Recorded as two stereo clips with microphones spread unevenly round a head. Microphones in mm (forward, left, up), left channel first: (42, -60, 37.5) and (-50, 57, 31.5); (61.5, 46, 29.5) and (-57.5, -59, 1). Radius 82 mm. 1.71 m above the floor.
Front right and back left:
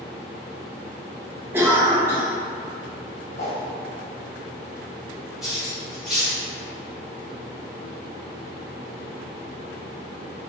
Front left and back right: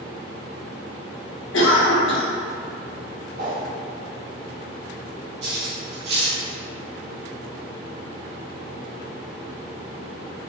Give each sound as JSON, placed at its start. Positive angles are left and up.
{"t": 1.5, "sound": "a cough", "azimuth_deg": 50, "distance_m": 0.9}
{"t": 3.4, "sound": "a whoosh", "azimuth_deg": -95, "distance_m": 1.1}
{"t": 5.4, "sound": "cutlery clinking", "azimuth_deg": -140, "distance_m": 1.1}